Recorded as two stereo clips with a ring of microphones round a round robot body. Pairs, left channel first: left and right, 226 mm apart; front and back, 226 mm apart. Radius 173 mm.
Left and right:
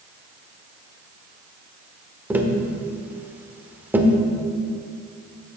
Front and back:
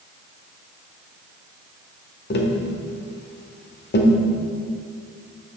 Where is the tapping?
10° right, 1.2 m.